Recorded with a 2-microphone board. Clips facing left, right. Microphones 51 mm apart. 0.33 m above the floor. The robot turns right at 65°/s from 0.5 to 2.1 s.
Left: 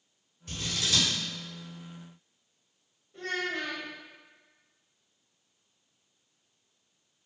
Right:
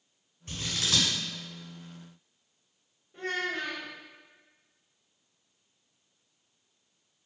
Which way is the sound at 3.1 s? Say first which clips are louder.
Even; 15° right (ahead or behind).